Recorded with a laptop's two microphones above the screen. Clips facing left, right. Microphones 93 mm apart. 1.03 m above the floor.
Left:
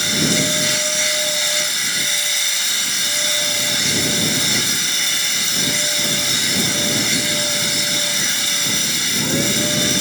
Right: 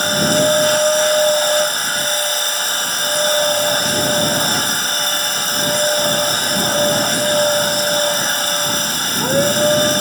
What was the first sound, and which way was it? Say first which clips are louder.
A machine running: right 6 dB; 45° right (ahead or behind).